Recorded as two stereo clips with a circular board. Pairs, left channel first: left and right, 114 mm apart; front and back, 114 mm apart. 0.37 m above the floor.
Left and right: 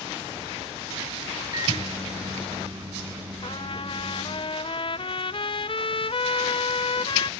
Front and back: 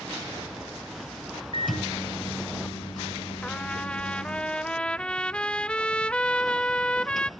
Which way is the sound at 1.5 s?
40° right.